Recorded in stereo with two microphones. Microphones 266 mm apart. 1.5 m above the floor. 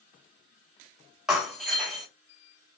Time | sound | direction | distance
1.3 | breaking glass | centre (ahead or behind) | 1.6 m